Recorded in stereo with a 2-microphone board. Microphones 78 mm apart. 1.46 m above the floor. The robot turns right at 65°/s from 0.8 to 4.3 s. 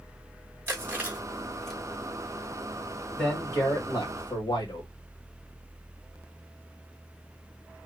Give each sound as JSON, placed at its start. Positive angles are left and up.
{"t": 0.7, "sound": "chewing", "side_deg": -25, "distance_m": 1.2}
{"t": 3.2, "sound": "a man speaking", "azimuth_deg": 10, "distance_m": 1.6}